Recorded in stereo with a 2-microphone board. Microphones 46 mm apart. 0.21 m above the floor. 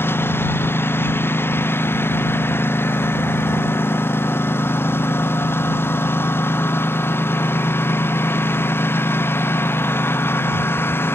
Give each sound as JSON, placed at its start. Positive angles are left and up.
{"t": 0.0, "sound": "a lawn mower", "side_deg": 55}